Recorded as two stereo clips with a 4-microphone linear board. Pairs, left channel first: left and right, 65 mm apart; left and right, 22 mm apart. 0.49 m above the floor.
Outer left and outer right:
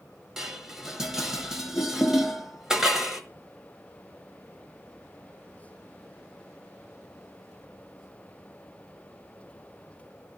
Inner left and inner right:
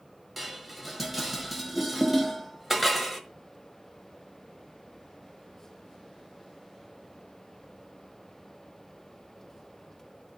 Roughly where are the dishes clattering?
Centre.